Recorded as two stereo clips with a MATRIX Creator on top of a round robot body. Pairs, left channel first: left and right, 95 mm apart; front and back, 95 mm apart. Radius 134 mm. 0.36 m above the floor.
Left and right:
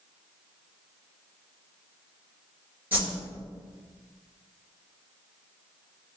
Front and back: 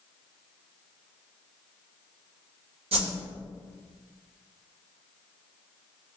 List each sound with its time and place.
2.9 s a whoosh: 160° right, 1.3 m